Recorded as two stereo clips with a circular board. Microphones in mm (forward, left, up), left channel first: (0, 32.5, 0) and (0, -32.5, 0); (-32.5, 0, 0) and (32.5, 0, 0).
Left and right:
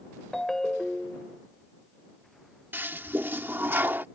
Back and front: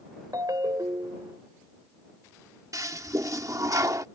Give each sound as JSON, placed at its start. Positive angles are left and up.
{"t": 0.3, "sound": "a ringtone", "azimuth_deg": 5}
{"t": 2.7, "sound": "a toilet flushing", "azimuth_deg": -35}